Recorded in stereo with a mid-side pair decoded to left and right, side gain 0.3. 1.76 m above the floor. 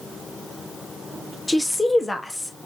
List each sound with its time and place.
1.5 s a woman speaking: 15° left, 1.4 m